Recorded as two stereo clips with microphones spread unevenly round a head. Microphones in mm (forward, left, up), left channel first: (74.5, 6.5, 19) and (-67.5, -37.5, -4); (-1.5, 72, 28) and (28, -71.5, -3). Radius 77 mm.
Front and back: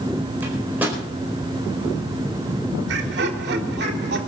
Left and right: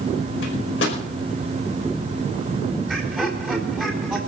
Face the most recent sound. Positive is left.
turn(degrees=-165)